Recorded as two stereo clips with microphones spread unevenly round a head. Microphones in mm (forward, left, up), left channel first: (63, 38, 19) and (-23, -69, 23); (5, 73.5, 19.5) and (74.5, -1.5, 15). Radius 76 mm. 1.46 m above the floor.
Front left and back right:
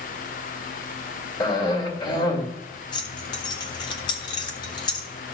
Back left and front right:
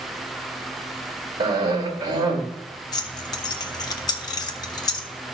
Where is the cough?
5° right, 3 m.